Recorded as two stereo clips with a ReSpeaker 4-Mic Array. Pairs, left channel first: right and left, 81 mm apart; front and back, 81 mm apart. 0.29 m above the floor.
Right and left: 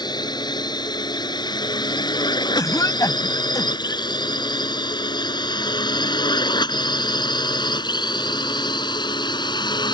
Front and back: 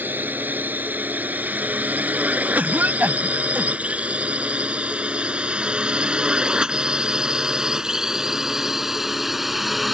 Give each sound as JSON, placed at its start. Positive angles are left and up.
{"t": 0.0, "sound": "a drone", "azimuth_deg": -115}
{"t": 2.5, "sound": "a cough", "azimuth_deg": -115}